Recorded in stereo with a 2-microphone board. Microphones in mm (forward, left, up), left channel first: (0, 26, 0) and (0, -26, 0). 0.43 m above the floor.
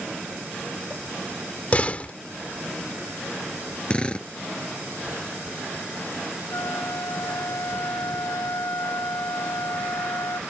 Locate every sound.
1.7 s a door slam: 30° left (ahead or behind)
3.9 s a drill: 20° left (ahead or behind)
6.5 s a flute: 85° left